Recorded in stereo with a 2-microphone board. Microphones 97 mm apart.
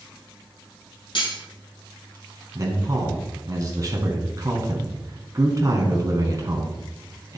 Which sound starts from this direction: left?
Cutlery clinking, at 1.1 s.